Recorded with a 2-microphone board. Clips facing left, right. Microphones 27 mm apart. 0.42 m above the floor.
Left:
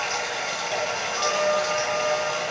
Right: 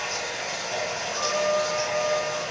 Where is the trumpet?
35° left (ahead or behind), 1.2 m.